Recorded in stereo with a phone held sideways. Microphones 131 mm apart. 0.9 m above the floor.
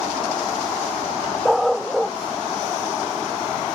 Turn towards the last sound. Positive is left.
turn(degrees=0)  # may be behind; listen again after turning